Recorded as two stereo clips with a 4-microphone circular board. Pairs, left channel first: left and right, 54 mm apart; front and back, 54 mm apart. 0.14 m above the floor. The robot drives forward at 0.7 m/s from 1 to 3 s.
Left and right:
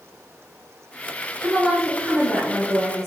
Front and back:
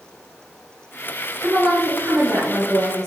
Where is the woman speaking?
170° right, 1.4 m; by 3.1 s 175° right, 2.5 m.